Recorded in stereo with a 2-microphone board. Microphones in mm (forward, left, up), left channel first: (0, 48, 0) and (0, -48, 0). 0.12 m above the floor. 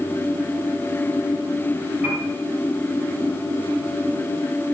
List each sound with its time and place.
2.0 s a piano: 20° right (ahead or behind), 3.5 m